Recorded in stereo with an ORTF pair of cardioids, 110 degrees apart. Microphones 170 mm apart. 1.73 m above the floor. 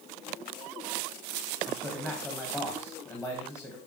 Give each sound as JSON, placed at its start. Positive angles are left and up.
{"t": 1.7, "sound": "a man speaking", "azimuth_deg": 15, "distance_m": 1.4}